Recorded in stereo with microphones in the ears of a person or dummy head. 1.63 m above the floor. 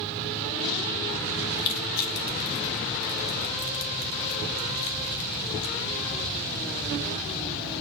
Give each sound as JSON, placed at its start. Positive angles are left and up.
{"t": 1.6, "sound": "crushing", "side_deg": 55, "distance_m": 2.0}